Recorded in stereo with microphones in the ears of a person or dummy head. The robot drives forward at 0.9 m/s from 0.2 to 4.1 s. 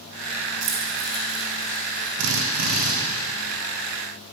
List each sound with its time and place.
0.6 s keys jangling: 70° right (ahead or behind), 2 m; by 2.1 s 45° right (ahead or behind), 3 m
2.2 s a drill: 70° right (ahead or behind), 1.2 m; by 2.9 s 45° right (ahead or behind), 1.5 m